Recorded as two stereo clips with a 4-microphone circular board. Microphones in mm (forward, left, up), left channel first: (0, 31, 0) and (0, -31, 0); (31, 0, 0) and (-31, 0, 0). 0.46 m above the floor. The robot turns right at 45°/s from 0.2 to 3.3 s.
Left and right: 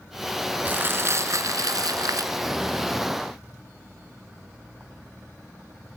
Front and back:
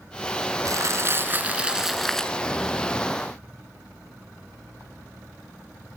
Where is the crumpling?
150° right, 1.2 m; by 2.4 s 75° right, 1.2 m.